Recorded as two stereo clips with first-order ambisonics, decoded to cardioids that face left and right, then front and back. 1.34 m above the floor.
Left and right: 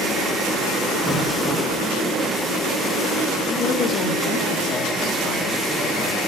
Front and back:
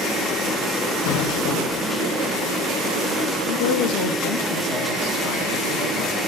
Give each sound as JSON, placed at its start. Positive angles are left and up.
{"t": 1.1, "sound": "an explosion", "azimuth_deg": 5, "distance_m": 1.3}
{"t": 3.5, "sound": "a woman speaking", "azimuth_deg": 35, "distance_m": 1.7}